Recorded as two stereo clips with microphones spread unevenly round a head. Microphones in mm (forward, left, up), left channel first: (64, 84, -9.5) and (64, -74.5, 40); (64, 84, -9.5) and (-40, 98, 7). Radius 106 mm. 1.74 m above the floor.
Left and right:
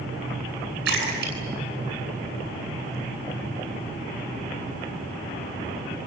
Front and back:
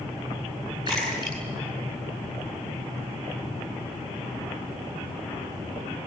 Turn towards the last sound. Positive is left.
turn(degrees=-120)